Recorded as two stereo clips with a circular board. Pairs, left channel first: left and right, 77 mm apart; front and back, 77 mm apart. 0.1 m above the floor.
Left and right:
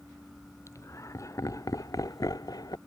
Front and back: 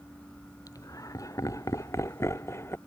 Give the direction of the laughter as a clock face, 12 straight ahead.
11 o'clock.